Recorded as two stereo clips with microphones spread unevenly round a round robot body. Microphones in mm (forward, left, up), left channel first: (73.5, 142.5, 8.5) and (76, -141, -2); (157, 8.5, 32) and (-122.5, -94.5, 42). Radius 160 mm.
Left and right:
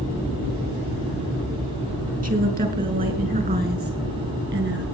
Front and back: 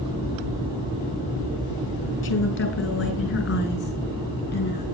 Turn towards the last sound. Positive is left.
turn(degrees=-35)